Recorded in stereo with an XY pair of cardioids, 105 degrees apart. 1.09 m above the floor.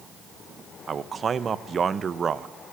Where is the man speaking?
45° right, 0.6 m.